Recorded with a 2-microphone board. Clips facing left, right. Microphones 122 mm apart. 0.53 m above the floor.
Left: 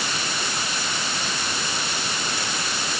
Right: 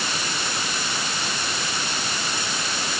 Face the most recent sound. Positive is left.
No sound to turn to.